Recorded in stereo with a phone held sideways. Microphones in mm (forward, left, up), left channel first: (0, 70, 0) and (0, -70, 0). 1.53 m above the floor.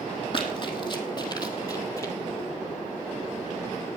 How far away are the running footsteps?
About 2.5 m.